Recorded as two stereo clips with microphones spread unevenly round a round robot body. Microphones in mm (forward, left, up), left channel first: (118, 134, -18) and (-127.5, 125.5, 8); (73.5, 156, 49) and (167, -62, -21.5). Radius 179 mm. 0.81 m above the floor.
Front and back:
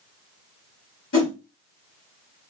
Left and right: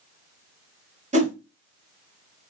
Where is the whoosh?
20° right, 1.5 m.